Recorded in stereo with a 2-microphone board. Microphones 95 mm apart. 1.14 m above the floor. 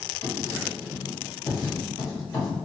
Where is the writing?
30° left (ahead or behind), 1.5 m.